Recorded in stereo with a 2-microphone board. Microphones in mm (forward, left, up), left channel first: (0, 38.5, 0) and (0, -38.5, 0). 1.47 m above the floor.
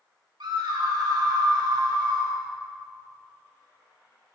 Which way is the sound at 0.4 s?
75° right (ahead or behind).